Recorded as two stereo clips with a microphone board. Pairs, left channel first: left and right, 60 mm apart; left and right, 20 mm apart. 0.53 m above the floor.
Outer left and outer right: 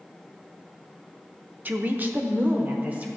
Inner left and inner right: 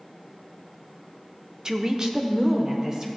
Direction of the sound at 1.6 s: 30° right (ahead or behind).